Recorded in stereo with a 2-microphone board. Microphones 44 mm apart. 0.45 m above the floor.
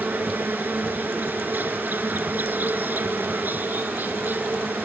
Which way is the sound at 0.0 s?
50° right (ahead or behind).